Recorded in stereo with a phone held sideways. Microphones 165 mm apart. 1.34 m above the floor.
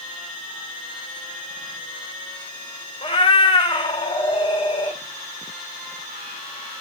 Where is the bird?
No bird in this recording.